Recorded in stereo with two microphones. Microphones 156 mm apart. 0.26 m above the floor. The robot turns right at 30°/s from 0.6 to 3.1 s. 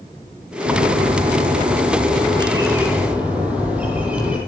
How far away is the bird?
About 8 m.